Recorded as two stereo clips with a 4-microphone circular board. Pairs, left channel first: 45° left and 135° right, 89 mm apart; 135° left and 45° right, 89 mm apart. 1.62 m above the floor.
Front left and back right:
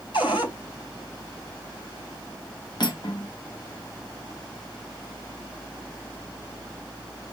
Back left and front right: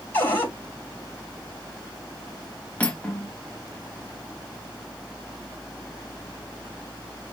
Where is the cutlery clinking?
65° left, 1.4 m.